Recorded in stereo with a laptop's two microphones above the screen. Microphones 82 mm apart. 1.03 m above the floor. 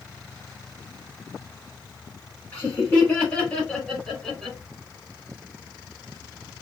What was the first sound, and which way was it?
Laughter, 20° left (ahead or behind).